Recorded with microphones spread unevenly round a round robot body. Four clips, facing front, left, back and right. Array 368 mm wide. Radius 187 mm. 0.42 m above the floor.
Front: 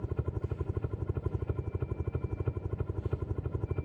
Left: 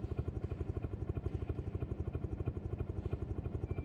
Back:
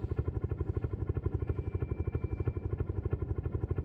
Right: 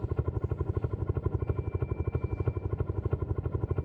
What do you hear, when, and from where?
0.0 s a helicopter: 70° right